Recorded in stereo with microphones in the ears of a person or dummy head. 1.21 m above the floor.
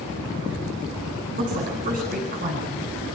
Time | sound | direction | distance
1.4 | a woman speaking | 45° right (ahead or behind) | 10 m